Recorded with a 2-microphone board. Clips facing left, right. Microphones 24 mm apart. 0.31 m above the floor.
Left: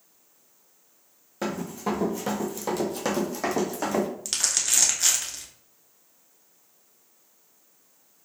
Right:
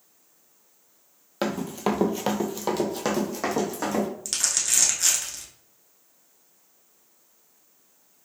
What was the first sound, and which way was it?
Running footsteps, 65° right (ahead or behind).